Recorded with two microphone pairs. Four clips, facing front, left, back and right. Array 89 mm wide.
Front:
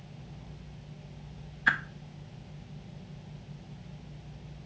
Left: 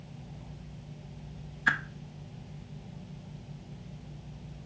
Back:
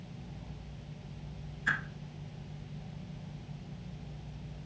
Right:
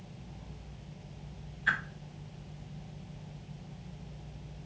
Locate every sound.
1.7 s a whoosh: 40° left, 0.8 m